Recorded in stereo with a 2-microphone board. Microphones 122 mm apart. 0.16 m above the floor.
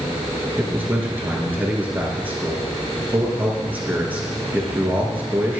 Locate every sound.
0.6 s a man speaking: 15° right (ahead or behind), 3 m